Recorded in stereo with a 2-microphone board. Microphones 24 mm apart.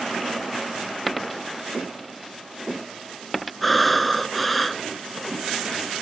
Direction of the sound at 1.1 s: Centre (ahead or behind).